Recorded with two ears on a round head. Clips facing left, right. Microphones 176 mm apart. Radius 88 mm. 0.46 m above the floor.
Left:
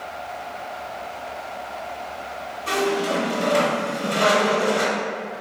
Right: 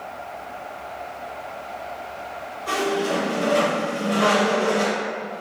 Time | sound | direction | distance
2.7 | a squeak | 40° left (ahead or behind) | 1.9 m